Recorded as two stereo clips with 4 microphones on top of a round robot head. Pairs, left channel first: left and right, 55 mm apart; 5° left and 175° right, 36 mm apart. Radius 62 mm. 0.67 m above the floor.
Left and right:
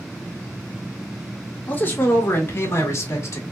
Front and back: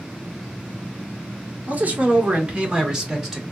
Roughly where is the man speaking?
Behind left.